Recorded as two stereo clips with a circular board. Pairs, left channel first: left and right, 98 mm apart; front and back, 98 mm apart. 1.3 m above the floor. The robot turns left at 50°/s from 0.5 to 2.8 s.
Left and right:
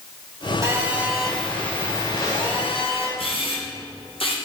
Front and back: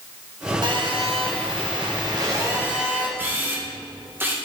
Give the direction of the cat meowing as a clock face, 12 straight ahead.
No cat meowing in this recording.